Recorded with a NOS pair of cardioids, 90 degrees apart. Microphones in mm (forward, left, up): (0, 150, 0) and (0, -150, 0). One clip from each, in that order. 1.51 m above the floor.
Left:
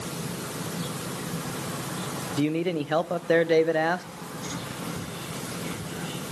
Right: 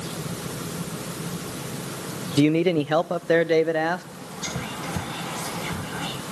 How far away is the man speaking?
About 0.6 m.